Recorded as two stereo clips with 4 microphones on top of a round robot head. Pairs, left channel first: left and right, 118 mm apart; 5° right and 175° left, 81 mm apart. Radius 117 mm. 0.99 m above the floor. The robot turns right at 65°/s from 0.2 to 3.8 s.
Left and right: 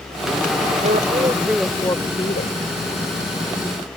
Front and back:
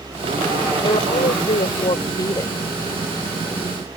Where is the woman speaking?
50° right; by 2.5 s 60° left.